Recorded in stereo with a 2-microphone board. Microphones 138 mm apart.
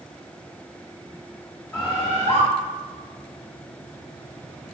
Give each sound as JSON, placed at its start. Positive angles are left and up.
{"t": 1.7, "sound": "a bird", "side_deg": 15, "distance_m": 1.7}